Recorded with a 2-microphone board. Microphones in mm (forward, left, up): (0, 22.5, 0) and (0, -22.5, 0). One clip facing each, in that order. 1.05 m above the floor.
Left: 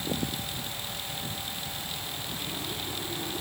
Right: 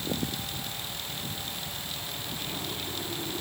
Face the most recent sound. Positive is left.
No sound to turn to.